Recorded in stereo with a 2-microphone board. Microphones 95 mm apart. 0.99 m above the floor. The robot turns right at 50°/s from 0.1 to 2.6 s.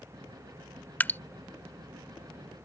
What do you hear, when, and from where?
1.0 s dripping: 20° left (ahead or behind); by 1.2 s 25° left (ahead or behind)